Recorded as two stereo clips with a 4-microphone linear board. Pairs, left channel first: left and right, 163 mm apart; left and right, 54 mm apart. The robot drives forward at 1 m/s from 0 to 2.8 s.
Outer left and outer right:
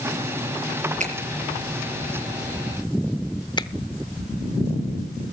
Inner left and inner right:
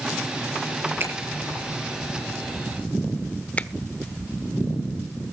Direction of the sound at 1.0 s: 45° right (ahead or behind).